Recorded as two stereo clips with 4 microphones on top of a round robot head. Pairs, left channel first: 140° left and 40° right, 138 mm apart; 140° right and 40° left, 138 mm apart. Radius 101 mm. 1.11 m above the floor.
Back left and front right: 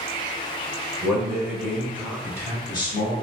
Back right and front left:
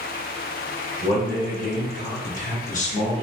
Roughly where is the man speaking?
Behind right.